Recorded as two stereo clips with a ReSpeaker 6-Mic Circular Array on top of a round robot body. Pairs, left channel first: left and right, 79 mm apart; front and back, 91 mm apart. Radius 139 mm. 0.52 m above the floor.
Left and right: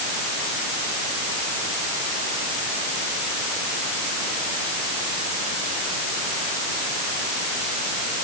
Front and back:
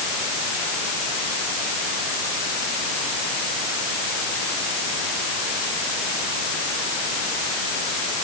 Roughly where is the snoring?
I don't hear snoring.